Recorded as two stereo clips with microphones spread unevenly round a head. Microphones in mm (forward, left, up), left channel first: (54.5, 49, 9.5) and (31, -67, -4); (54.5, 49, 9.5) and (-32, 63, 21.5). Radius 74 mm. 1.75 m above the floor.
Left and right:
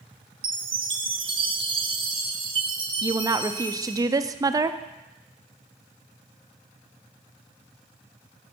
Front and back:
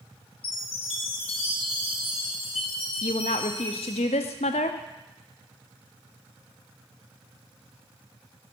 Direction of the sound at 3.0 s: 40° right.